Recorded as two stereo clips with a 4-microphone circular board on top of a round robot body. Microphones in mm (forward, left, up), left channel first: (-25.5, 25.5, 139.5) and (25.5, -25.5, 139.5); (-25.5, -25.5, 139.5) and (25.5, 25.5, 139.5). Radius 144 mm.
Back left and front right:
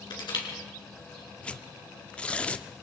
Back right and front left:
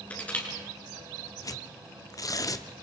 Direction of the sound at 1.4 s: 155° right.